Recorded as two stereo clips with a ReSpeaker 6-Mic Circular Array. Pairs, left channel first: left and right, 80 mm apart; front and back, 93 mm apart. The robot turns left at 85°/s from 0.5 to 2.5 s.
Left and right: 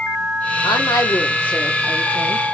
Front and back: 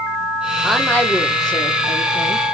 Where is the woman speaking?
95° left, 1.5 m; by 2.4 s 60° right, 1.5 m.